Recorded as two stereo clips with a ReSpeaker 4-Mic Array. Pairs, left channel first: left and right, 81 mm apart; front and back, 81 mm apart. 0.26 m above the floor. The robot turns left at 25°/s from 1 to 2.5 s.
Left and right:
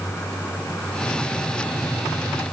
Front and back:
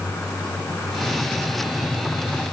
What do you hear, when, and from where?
Only background noise.